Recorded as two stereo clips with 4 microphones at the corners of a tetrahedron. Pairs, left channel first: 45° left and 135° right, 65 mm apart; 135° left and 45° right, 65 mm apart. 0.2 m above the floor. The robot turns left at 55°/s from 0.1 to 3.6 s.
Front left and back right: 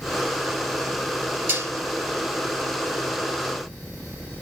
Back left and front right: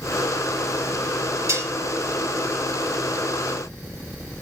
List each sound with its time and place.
1.5 s dishes clattering: 85° right, 2.5 m; by 1.7 s 100° right, 2.5 m